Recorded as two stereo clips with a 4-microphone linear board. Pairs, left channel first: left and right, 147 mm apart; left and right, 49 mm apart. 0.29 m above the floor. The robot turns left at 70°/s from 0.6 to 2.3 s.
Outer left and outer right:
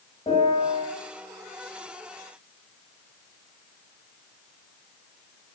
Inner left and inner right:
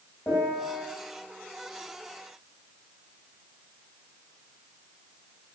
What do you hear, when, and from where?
0.3 s a piano: 40° left (ahead or behind), 2 m; by 0.8 s 45° left (ahead or behind), 2 m